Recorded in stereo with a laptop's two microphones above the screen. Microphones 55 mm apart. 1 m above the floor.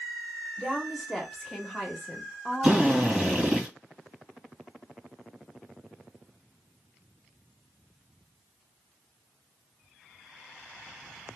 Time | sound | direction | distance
0.6 | a woman speaking | centre (ahead or behind) | 0.9 m
2.6 | a drill | 15° right (ahead or behind) | 1.9 m